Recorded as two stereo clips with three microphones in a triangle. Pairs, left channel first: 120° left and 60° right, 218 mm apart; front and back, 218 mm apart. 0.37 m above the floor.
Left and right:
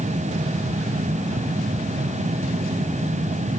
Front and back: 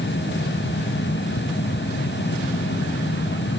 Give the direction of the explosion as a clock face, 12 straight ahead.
I don't hear an explosion.